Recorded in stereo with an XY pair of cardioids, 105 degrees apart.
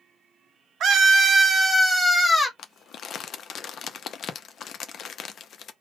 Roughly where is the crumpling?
Ahead left.